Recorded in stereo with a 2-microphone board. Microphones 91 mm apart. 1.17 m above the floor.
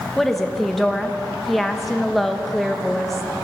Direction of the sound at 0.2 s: Centre (ahead or behind).